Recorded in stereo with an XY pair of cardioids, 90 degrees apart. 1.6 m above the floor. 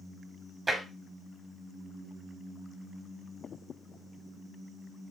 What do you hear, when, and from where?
0.7 s tapping: 25° right, 3 m